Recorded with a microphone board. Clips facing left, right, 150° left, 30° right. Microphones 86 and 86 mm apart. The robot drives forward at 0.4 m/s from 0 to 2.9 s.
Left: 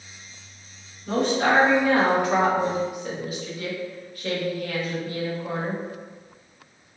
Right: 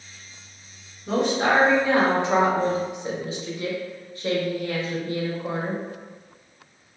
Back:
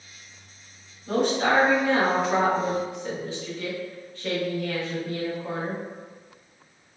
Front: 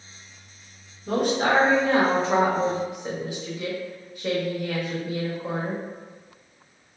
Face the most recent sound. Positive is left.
turn(degrees=-80)